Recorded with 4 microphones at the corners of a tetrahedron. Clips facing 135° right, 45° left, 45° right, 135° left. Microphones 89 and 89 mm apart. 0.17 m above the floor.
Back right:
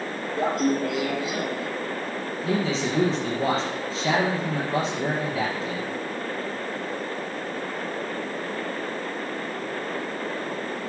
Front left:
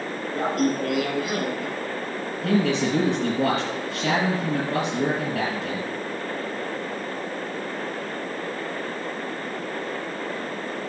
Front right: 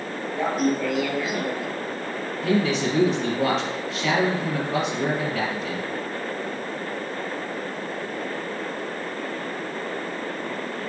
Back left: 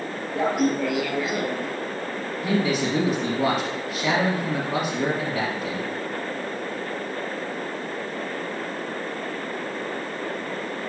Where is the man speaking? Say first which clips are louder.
Front left 4 dB, front right 1 dB; 55° left, 3 m.